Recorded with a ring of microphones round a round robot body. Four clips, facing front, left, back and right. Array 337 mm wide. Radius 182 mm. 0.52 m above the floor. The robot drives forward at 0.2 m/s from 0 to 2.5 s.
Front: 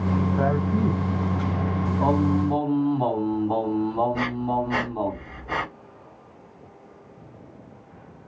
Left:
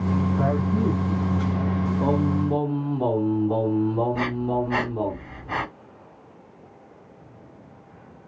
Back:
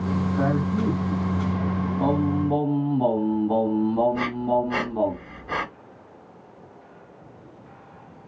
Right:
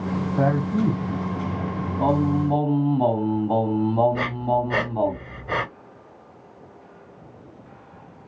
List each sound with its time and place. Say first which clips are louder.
0.4 s a man speaking: right 2 dB, back 1 dB; 75° right, 4.5 m; by 1.8 s 80° right, 4.5 m
2.0 s singing: right 4 dB, front 1 dB; 115° right, 2.5 m; by 5.1 s 120° right, 2.5 m
4.1 s breathing: right 2 dB, back 2 dB; 95° right, 4 m